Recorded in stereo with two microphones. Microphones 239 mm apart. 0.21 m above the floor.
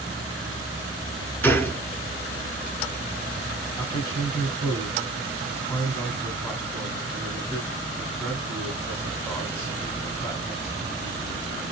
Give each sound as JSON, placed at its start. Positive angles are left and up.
{"t": 1.4, "sound": "a gunshot", "side_deg": 10, "distance_m": 0.8}
{"t": 3.8, "sound": "a man speaking", "side_deg": 10, "distance_m": 1.6}